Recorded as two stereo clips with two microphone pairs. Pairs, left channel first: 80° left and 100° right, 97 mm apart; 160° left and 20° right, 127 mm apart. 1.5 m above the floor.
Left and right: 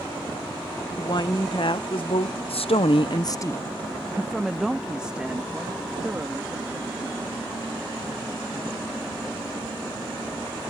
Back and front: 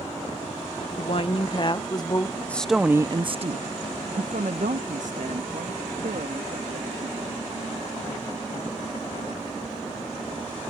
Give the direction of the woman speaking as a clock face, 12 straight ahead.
8 o'clock.